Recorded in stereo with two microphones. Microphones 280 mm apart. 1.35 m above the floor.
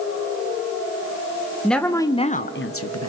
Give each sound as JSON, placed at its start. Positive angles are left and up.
{"t": 1.6, "sound": "a woman speaking", "side_deg": 0, "distance_m": 1.4}